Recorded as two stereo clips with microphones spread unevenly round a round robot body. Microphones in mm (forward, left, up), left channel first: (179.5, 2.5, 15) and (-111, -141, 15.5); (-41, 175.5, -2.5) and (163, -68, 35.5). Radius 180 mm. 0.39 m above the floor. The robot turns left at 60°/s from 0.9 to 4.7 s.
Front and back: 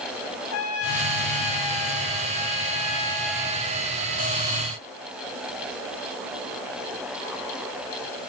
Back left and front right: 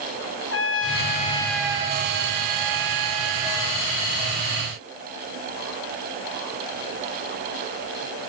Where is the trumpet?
80° left, 1.7 m; by 3.9 s 100° right, 1.7 m.